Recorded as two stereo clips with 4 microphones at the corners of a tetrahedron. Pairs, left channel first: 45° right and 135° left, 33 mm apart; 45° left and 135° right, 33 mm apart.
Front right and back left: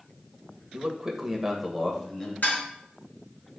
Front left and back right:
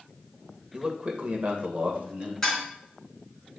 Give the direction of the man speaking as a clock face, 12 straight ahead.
6 o'clock.